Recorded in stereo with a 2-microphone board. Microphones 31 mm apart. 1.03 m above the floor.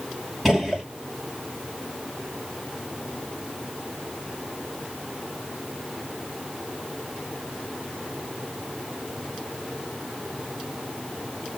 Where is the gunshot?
Centre (ahead or behind), 1.5 m.